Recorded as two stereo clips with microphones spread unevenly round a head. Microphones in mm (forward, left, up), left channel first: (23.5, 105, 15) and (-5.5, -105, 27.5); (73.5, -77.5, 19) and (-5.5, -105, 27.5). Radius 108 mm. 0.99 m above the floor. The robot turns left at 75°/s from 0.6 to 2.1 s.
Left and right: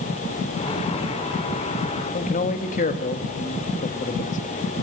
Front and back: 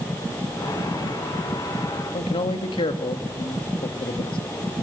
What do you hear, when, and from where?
2.1 s a man speaking: 30° left, 1.6 m